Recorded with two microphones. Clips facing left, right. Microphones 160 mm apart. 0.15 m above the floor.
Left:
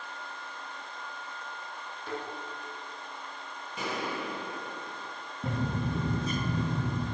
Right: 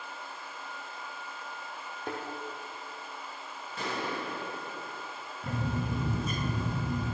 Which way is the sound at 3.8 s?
15° left (ahead or behind).